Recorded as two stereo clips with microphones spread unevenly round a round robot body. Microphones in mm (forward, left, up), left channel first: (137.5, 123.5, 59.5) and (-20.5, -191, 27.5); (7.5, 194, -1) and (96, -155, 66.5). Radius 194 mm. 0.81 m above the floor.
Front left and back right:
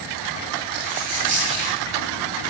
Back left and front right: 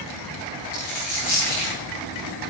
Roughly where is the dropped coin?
Behind left.